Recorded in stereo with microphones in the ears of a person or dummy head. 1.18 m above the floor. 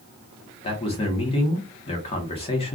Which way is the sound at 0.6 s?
25° left (ahead or behind).